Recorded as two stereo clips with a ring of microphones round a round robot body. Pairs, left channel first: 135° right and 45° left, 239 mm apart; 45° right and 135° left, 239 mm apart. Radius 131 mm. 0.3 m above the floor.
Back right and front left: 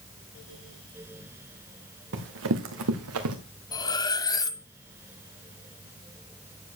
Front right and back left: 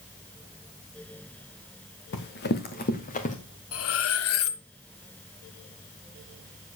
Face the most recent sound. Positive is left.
turn(degrees=-60)